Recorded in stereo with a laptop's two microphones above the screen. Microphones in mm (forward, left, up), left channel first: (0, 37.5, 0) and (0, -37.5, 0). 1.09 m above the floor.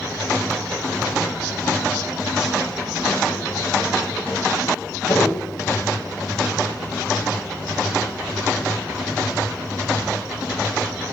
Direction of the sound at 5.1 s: 50° left (ahead or behind).